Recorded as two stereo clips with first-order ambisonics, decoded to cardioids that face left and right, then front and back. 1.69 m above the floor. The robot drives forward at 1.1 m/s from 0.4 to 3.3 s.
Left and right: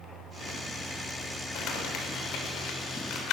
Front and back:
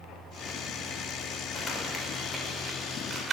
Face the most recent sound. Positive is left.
turn(degrees=115)